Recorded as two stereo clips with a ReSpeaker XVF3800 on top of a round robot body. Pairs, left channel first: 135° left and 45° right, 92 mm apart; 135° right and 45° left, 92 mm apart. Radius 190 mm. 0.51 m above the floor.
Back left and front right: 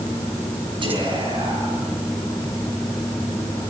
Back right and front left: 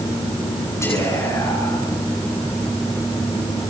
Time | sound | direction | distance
0.8 | whispering | 75° right | 8.5 m